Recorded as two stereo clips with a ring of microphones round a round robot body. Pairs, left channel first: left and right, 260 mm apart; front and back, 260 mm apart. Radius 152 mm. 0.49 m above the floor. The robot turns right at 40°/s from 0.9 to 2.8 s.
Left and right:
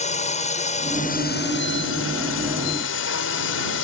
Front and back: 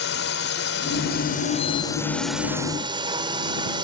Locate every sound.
0.0 s a drone: 35° left; by 3.9 s 110° left